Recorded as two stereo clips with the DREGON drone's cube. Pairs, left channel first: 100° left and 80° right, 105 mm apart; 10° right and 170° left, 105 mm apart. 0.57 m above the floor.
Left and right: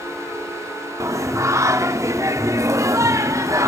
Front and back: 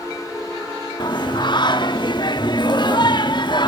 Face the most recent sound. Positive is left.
turn(degrees=-30)